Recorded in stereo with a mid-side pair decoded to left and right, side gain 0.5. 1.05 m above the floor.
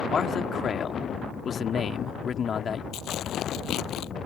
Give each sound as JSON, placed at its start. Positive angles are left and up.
{"t": 0.1, "sound": "a man speaking", "azimuth_deg": 50}
{"t": 2.9, "sound": "tearing paper", "azimuth_deg": 70}